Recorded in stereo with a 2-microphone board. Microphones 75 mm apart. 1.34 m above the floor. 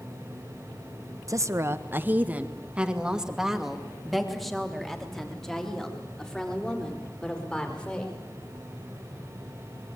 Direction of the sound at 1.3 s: 45° right (ahead or behind).